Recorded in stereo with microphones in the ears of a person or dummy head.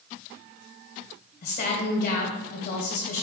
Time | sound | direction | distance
1.4 | a woman speaking | 50° left (ahead or behind) | 1.7 m